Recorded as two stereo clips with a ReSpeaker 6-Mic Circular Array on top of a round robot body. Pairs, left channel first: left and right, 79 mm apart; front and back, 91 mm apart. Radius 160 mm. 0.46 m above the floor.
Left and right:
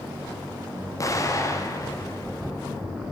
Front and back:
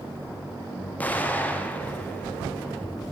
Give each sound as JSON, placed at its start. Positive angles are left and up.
{"t": 1.0, "sound": "an explosion", "azimuth_deg": 65, "distance_m": 0.8}